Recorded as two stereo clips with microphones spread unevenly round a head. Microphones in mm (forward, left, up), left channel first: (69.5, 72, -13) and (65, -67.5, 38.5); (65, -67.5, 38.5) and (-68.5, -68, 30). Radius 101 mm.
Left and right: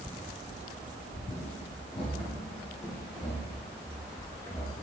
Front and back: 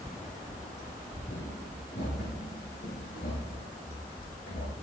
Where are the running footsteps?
50° left, 4 m; by 4.7 s 10° left, 5 m.